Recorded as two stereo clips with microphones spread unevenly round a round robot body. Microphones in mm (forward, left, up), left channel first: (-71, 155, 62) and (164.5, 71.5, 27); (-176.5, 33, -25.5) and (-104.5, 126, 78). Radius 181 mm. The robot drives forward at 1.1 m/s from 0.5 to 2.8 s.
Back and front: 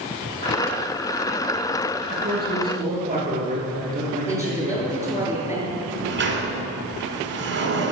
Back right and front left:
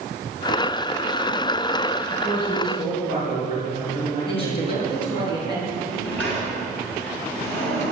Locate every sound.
2.1 s a man speaking: 90° right, 5.5 m; by 5.3 s 95° right, 5.5 m
4.3 s a woman speaking: 125° right, 5.5 m
5.7 s a sliding door: 65° right, 2 m